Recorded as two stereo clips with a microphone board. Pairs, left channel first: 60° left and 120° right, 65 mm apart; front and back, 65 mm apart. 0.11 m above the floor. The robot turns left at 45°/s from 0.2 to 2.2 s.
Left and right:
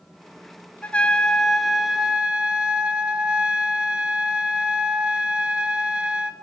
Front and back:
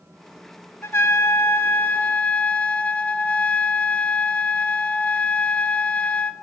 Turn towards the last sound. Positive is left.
turn(degrees=-55)